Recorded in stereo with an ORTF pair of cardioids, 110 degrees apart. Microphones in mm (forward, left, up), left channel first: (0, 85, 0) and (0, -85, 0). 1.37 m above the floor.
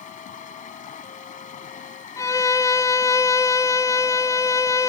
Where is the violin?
20° left.